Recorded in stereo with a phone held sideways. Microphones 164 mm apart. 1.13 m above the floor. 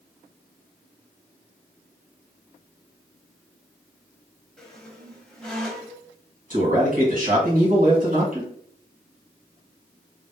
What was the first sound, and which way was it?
A squeak, 5° left (ahead or behind).